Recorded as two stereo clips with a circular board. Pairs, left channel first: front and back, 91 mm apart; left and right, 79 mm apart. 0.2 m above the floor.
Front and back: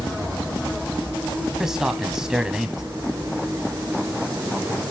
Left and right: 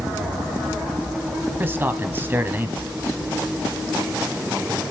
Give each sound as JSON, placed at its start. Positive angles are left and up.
{"t": 1.6, "sound": "a man speaking", "azimuth_deg": -105, "distance_m": 1.1}